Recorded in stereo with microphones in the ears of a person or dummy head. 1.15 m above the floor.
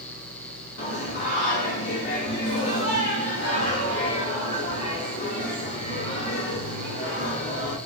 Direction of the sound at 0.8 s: 50° left (ahead or behind).